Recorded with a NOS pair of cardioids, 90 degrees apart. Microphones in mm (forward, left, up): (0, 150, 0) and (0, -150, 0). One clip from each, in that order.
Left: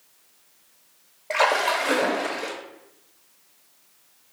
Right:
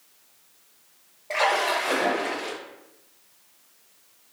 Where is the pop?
No pop in this recording.